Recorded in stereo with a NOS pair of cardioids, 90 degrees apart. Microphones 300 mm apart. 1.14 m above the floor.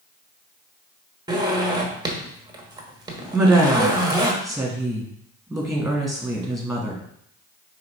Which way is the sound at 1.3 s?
15° right.